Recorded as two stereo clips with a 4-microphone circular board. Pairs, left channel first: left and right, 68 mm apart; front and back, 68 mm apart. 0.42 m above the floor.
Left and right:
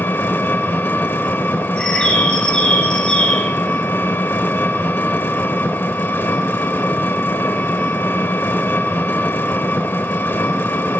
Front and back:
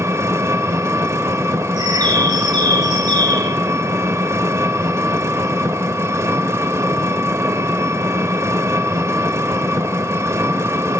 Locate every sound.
0.0 s an engine running: 140° left, 0.8 m
1.8 s a bird: 165° left, 1.5 m